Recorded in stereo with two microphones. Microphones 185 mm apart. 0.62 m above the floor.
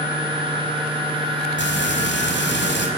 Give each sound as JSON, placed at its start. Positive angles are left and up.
{"t": 1.6, "sound": "frying", "side_deg": 80, "distance_m": 5.0}